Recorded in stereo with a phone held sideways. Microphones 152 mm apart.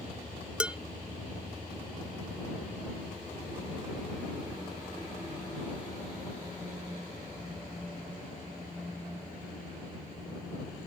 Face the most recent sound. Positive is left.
turn(degrees=-5)  # may be behind; listen again after turning